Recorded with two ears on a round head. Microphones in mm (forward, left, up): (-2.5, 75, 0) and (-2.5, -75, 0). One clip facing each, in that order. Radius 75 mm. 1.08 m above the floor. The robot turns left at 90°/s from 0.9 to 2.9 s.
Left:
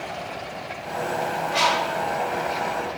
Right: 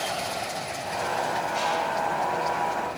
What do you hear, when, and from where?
1.5 s a bird: 100° left, 1.8 m; by 2.0 s 55° left, 1.8 m